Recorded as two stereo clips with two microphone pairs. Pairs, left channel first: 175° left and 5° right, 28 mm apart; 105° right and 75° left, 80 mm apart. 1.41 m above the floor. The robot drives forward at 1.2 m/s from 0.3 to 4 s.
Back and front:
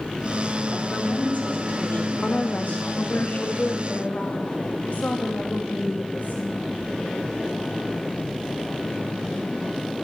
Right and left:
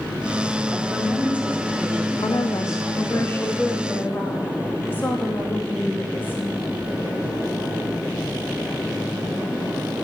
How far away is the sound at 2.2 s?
About 0.7 m.